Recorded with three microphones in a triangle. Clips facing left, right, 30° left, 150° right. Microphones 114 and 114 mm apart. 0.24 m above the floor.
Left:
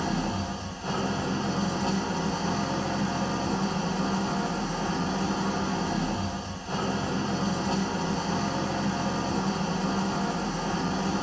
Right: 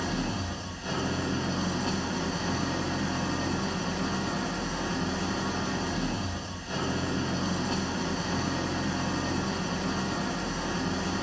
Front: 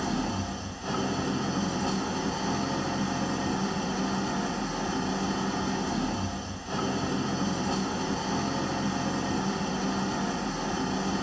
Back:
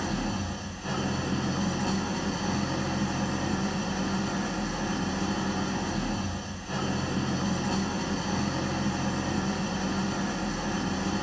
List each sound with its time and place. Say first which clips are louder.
0.0 s an engine running: left 3 dB, front 1 dB; 80° left, 0.8 m